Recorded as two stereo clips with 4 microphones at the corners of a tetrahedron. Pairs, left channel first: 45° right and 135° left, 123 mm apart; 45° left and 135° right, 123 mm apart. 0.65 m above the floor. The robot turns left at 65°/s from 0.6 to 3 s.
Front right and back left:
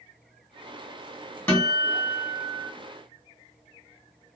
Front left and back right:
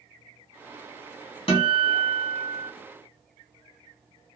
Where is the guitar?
20° left, 1.5 m; by 2.7 s 55° right, 1.5 m.